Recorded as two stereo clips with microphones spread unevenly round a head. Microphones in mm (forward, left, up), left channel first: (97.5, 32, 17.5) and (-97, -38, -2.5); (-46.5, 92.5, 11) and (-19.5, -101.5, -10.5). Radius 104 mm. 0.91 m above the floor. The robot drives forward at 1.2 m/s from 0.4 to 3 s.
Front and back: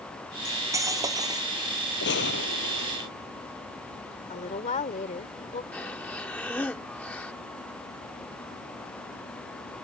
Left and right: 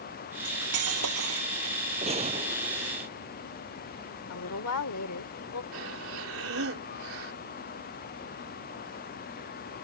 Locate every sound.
0.5 s cutlery clinking: 85° right; by 1.8 s 90° right
2.0 s a gunshot: 20° right
4.3 s a woman speaking: 80° left
5.7 s breathing: 65° right